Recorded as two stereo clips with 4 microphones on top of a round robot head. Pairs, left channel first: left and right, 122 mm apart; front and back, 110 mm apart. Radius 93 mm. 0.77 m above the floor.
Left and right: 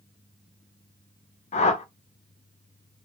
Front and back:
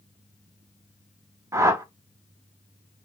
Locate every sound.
1.5 s a whoosh: 115° left, 0.6 m